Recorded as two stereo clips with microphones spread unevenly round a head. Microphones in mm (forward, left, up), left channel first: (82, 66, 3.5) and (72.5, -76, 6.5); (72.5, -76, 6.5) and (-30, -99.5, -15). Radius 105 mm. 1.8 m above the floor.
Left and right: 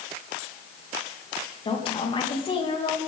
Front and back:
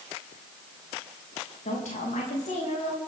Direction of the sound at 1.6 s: 35° left.